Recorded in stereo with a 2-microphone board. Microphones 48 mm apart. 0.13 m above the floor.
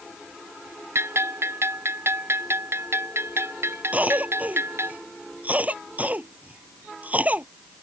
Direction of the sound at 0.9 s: 60° right (ahead or behind).